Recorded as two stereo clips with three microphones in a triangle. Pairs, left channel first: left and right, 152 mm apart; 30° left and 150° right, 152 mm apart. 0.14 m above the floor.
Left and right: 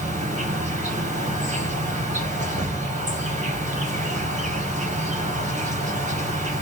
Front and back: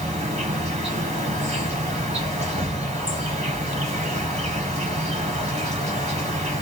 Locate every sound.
0.0 s an insect: 115° right, 3 m